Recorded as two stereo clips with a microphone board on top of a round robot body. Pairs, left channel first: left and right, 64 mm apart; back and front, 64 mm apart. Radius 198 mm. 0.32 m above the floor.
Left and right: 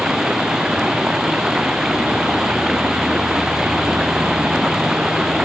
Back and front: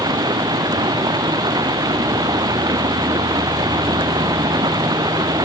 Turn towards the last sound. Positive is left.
turn(degrees=-10)